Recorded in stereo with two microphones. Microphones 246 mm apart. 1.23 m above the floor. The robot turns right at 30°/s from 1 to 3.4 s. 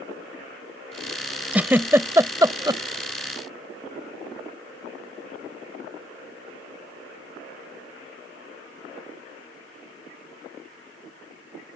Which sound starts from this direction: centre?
A giggle, at 1.5 s.